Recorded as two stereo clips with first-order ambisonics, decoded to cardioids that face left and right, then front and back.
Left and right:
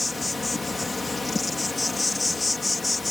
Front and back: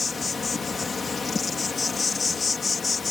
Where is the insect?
30° left.